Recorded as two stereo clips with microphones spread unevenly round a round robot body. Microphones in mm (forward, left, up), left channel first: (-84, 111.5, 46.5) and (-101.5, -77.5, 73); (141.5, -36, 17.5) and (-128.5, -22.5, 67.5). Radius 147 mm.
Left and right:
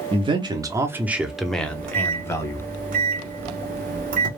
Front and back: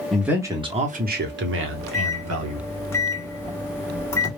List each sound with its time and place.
0.1 s a man speaking: 65° right, 0.8 m; by 2.6 s 150° left, 1.3 m
1.6 s a microwave: 65° right, 0.8 m